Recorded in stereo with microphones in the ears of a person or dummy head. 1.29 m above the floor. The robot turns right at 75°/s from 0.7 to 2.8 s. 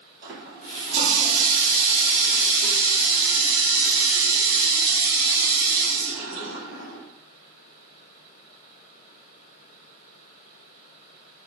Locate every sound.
0.2 s a running tap: 50° right, 1.6 m; by 7.0 s 110° left, 1.6 m